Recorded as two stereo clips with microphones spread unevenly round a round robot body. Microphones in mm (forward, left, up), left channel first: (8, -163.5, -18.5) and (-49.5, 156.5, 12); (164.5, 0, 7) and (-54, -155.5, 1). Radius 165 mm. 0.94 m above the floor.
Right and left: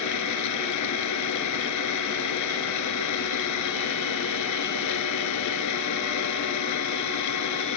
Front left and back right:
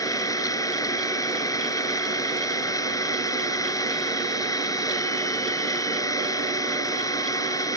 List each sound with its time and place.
0.0 s an engine running: 40° right